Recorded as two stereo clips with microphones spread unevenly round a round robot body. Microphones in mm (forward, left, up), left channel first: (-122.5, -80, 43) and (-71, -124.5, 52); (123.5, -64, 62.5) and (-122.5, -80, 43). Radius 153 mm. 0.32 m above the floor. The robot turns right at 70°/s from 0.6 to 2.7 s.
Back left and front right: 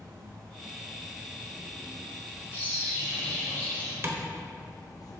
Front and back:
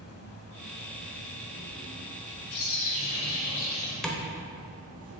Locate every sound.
0.0 s an insect: 20° right, 1.1 m; by 5.2 s 125° left, 1.1 m
2.5 s a bird: 25° left, 1.2 m; by 3.9 s 40° left, 1.2 m
4.0 s tapping: 90° right, 1.0 m